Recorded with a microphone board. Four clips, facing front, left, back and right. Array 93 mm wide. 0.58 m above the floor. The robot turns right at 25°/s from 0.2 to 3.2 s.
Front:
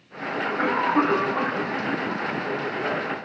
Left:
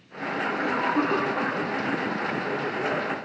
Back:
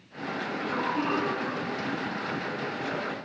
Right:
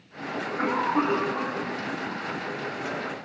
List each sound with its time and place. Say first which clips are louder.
0.3 s a cough: even, front 8 dB; 40° right, 4.5 m; by 3.2 s 30° left, 4.5 m